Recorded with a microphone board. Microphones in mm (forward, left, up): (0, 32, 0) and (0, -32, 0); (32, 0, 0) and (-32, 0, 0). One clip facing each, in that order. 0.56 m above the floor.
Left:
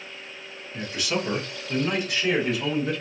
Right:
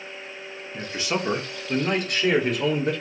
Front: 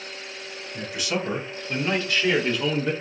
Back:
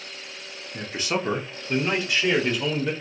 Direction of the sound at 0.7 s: 150° right.